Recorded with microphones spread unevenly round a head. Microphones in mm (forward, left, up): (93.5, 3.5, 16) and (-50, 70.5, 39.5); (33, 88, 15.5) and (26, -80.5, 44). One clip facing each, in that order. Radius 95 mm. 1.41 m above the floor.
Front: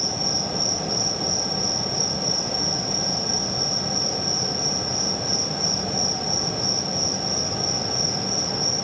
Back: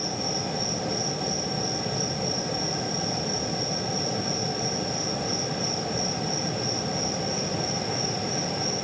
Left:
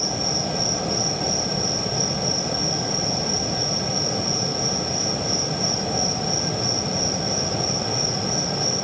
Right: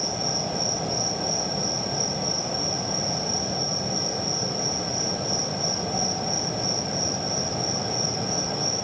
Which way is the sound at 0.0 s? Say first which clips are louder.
Front 1 dB, left 2 dB; 5° right.